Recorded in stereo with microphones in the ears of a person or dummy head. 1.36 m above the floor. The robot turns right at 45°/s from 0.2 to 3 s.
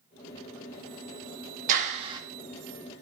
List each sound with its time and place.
1.7 s a clap: 45° right (ahead or behind), 1.7 m; by 2.2 s 20° right (ahead or behind), 1.7 m